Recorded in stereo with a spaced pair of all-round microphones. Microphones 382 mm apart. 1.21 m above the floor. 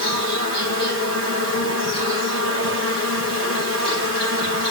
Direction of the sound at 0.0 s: 35° right (ahead or behind).